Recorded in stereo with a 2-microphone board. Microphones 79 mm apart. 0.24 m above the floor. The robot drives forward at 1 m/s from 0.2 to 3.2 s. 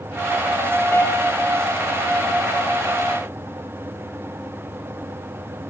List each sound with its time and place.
0.9 s a piano: 35° left (ahead or behind), 1.3 m; by 1.4 s 25° left (ahead or behind), 1.7 m